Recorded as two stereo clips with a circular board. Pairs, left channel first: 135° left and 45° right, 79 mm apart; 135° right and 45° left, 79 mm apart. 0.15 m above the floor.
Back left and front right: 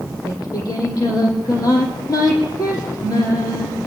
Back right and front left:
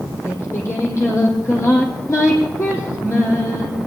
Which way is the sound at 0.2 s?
170° left.